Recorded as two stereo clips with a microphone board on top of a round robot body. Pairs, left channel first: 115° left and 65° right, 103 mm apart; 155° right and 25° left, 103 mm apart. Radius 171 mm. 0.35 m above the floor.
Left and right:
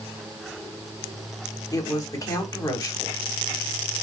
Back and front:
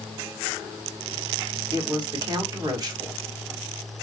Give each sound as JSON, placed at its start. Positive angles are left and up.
{"t": 1.7, "sound": "a woman speaking", "azimuth_deg": 65, "distance_m": 2.0}